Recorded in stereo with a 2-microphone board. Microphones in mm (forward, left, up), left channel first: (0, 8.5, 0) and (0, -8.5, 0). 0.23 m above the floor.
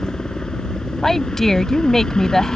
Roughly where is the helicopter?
Left.